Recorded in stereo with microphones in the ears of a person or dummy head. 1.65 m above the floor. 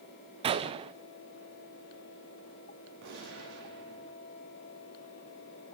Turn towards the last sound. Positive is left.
turn(degrees=-65)  # may be behind; listen again after turning